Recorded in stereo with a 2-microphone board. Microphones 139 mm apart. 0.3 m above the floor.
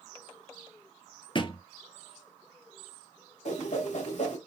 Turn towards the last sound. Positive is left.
turn(degrees=60)  # may be behind; listen again after turning